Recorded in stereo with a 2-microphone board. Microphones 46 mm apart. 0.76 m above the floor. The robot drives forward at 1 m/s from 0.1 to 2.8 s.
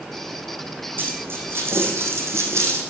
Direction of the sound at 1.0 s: 50° right (ahead or behind).